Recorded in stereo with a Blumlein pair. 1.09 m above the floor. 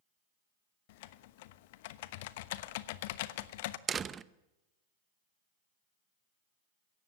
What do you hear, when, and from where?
0.9 s typing on a keyboard: 50° left, 1.0 m
3.9 s a door slam: 20° right, 0.8 m